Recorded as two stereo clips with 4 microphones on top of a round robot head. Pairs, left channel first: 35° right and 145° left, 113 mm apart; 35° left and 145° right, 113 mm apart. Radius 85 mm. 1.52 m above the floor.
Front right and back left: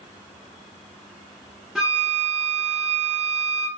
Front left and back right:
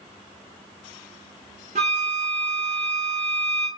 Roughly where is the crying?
No crying in this recording.